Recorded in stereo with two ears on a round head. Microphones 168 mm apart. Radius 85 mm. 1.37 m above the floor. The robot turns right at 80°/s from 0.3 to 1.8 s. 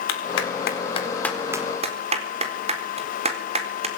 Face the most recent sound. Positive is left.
turn(degrees=-35)  # may be behind; listen again after turning